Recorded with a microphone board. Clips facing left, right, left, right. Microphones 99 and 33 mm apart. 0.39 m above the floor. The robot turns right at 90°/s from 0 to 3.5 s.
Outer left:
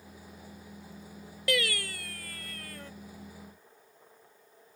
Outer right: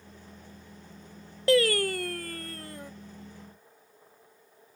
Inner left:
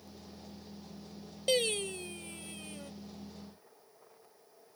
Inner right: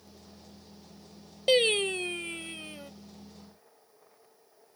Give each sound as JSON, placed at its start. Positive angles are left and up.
{"t": 1.5, "sound": "singing", "azimuth_deg": -140}